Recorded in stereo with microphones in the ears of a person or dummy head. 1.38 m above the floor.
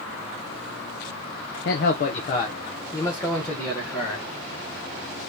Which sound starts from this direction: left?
A man speaking, at 1.6 s.